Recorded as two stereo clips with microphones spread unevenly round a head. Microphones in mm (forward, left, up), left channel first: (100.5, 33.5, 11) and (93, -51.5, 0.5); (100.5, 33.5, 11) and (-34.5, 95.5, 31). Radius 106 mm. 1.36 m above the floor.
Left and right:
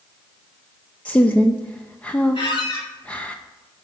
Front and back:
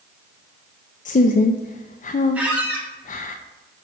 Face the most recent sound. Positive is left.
turn(degrees=75)